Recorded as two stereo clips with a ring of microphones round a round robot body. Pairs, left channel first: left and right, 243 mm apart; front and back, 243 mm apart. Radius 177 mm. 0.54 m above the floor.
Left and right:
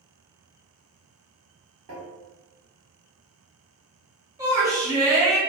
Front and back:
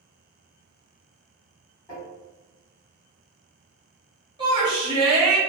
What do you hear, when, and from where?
1.9 s tapping: 80° right, 1.2 m
4.4 s a shout: 145° right, 0.6 m